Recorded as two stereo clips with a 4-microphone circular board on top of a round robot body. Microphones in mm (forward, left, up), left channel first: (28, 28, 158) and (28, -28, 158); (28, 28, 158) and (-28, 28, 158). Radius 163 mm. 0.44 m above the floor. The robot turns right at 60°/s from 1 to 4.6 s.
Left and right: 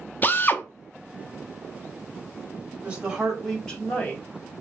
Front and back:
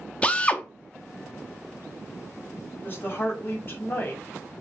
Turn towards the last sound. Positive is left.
turn(degrees=70)